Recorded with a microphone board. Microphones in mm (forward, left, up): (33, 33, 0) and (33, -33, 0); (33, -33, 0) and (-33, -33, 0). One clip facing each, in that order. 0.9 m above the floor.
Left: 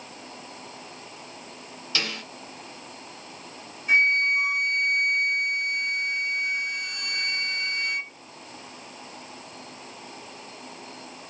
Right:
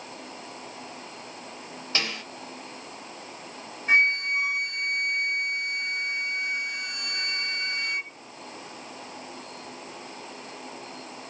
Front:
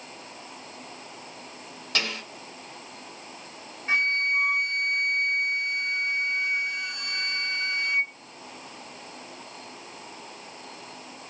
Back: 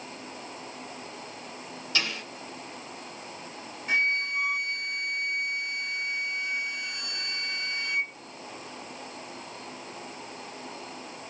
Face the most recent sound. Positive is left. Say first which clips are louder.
# left 1 dB, front 2 dB
turn(degrees=-50)